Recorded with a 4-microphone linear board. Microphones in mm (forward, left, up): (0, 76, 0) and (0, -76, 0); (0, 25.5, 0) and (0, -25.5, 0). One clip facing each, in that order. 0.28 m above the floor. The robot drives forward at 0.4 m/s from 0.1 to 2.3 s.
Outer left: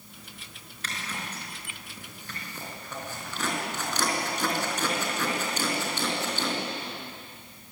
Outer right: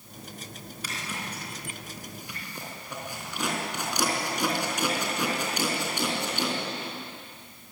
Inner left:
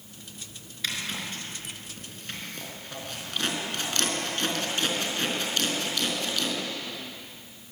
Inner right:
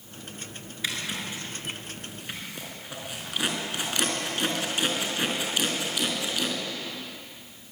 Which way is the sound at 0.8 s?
10° right (ahead or behind).